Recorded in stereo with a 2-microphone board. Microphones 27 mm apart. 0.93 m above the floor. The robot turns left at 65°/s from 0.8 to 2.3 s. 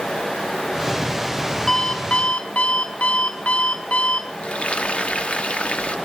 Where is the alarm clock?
160° left, 2.5 m; by 4.3 s 120° left, 2.5 m.